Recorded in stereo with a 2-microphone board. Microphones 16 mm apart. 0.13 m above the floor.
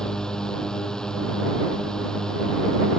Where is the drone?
50° left (ahead or behind).